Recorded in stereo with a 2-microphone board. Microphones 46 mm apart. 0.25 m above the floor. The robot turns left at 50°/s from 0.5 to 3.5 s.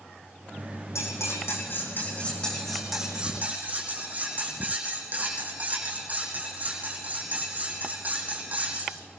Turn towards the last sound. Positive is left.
turn(degrees=-35)